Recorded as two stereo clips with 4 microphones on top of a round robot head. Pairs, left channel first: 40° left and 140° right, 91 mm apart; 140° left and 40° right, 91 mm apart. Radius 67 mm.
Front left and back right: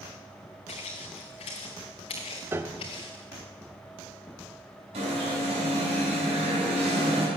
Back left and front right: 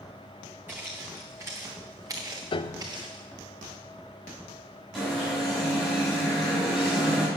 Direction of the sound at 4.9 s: 135° right.